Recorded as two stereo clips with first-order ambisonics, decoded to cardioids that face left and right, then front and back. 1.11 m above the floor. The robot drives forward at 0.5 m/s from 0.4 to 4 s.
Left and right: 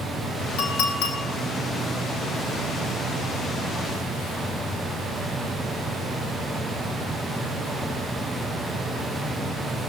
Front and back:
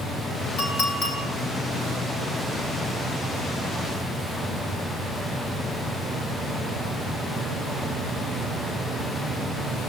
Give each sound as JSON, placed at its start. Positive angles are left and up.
{"t": 0.6, "sound": "a clink", "azimuth_deg": 55, "distance_m": 2.5}